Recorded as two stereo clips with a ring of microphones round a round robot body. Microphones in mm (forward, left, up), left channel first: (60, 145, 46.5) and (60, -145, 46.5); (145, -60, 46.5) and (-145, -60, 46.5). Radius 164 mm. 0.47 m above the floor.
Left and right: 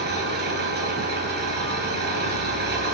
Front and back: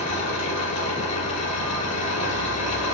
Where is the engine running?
35° right, 3 m.